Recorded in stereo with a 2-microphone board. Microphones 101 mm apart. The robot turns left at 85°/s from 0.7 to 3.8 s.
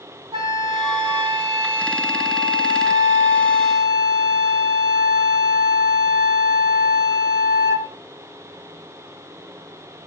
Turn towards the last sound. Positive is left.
turn(degrees=-10)